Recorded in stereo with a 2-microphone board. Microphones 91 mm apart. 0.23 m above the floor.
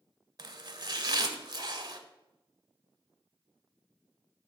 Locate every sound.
0.4 s chopping: 45° right (ahead or behind), 0.6 m